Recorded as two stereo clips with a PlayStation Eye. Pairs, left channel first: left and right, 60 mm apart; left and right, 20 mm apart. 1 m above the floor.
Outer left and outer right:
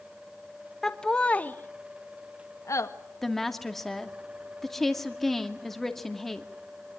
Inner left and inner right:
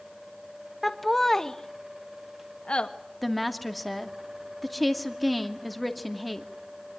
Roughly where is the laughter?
Centre.